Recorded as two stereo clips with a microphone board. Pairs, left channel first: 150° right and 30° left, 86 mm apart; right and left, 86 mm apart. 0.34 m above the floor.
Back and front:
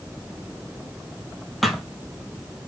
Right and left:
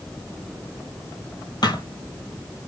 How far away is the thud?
About 1.4 m.